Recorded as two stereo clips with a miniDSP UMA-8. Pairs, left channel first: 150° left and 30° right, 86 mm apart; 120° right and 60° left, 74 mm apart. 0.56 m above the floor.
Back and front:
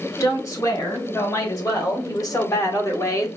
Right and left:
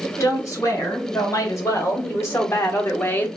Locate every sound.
0.2 s a woman speaking: 165° right, 2.5 m; by 3.3 s 175° right, 1.0 m